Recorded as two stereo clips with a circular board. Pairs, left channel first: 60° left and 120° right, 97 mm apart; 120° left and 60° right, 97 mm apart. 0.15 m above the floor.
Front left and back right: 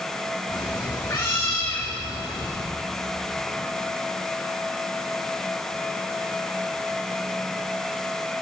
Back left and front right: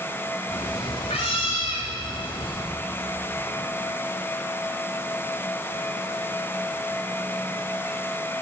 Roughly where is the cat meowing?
Behind left.